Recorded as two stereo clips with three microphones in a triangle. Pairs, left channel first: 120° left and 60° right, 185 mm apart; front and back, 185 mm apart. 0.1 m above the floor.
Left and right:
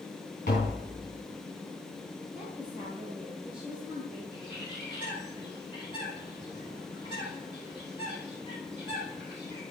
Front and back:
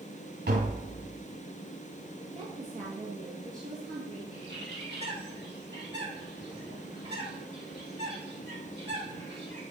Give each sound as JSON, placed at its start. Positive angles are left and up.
{"t": 0.5, "sound": "tapping", "azimuth_deg": 165, "distance_m": 5.0}
{"t": 2.4, "sound": "a woman speaking", "azimuth_deg": -140, "distance_m": 2.0}
{"t": 4.3, "sound": "a bird", "azimuth_deg": 180, "distance_m": 4.0}